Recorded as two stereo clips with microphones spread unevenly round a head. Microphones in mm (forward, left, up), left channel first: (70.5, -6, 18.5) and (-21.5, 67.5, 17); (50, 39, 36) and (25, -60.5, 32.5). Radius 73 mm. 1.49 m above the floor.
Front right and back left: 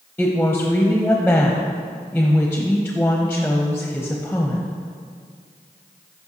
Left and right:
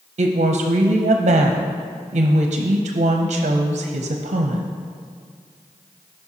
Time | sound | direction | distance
0.2 | a woman speaking | 120° right | 0.6 m